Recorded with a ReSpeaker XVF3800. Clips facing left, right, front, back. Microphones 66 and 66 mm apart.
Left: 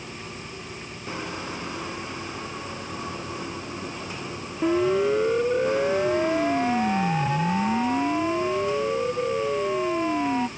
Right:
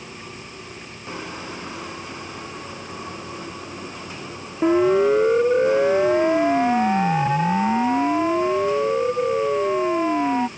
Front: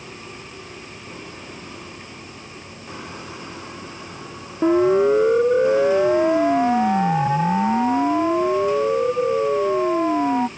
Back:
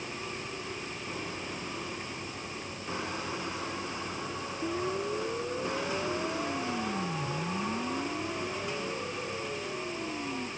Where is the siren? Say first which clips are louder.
Right 5 dB, front 18 dB; 25° right; by 10.5 s 20° right.